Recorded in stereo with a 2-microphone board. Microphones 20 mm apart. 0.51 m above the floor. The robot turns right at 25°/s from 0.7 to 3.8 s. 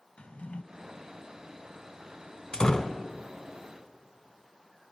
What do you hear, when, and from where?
0.2 s a drawer: 80° left, 1.1 m
2.5 s a door slam: 50° left (ahead or behind), 1.2 m; by 3.0 s 40° left (ahead or behind), 1.2 m